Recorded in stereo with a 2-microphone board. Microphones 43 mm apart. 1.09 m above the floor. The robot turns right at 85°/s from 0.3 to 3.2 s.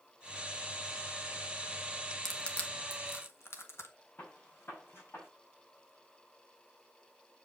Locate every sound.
2.2 s crushing: 5° left (ahead or behind), 1.4 m; by 3.9 s 75° left (ahead or behind), 1.4 m
4.2 s a gunshot: 60° left (ahead or behind), 4 m